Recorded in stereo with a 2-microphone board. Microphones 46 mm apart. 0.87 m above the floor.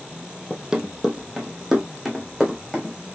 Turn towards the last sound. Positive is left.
turn(degrees=-5)  # may be behind; listen again after turning